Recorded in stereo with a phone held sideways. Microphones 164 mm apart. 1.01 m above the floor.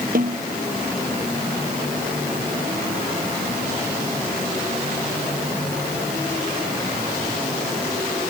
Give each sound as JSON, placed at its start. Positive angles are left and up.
{"t": 0.1, "sound": "a snare drum", "side_deg": -60}